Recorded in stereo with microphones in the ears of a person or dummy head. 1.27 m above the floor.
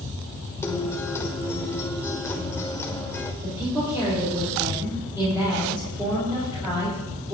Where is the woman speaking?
15° right (ahead or behind), 4 m.